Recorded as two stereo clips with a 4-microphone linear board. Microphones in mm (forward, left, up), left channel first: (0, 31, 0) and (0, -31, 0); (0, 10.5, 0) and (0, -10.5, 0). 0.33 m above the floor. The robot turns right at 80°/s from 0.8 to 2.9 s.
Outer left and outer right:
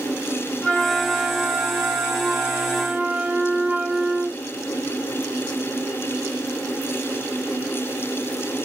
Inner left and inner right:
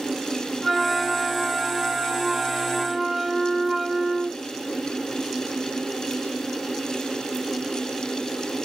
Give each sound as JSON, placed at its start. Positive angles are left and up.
{"t": 0.6, "sound": "a flute", "azimuth_deg": 165, "distance_m": 1.1}